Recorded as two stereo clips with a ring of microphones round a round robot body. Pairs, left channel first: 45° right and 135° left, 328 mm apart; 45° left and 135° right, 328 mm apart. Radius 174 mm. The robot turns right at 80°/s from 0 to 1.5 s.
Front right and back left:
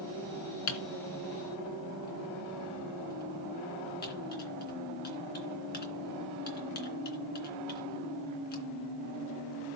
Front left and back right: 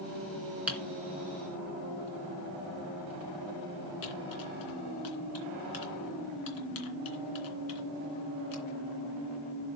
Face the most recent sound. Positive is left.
turn(degrees=15)